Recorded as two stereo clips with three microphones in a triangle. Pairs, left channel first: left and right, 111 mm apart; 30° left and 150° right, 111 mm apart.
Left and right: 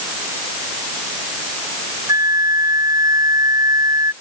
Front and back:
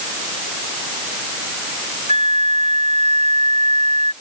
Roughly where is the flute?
Behind right.